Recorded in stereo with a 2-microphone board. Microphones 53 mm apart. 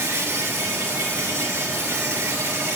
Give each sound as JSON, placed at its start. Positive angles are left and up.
{"t": 0.0, "sound": "an insect", "side_deg": -65, "distance_m": 2.0}